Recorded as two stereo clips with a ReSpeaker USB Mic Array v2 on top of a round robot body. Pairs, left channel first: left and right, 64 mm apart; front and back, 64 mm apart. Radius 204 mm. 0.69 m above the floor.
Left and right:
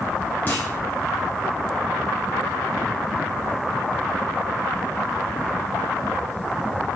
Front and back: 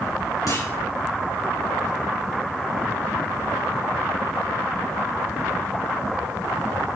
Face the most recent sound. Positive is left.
turn(degrees=30)